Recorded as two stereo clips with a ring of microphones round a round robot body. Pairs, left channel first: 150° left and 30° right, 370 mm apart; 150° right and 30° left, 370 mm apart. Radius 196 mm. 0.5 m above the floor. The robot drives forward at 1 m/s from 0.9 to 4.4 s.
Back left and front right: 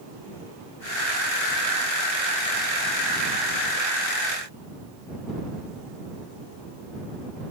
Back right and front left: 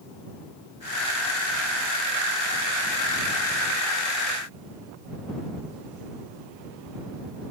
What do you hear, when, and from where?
Only background noise.